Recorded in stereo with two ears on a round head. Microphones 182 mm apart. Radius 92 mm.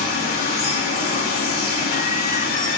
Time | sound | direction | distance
0.0 | running water | 45° left (ahead or behind) | 2.5 m